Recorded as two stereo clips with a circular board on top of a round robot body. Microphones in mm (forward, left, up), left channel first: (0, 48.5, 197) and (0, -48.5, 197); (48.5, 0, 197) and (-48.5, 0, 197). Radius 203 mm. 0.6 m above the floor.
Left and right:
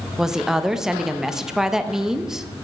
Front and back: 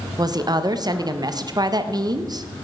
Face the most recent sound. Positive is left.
turn(degrees=-175)